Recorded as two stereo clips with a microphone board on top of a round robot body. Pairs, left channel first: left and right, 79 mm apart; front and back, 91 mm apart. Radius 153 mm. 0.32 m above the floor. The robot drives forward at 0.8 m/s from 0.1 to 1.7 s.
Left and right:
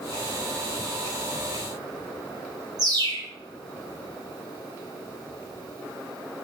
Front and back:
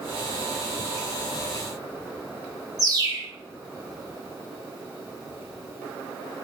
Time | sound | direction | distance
2.8 | a bird | 130° right | 0.5 m